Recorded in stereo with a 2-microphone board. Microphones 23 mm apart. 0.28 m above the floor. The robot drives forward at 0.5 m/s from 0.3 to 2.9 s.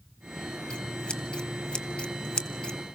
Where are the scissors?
45° left (ahead or behind), 1.6 m; by 2.8 s 40° left (ahead or behind), 1.7 m.